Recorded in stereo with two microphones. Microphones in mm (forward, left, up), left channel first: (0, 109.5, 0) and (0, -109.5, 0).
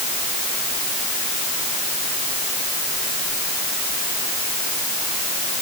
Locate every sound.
Only background noise.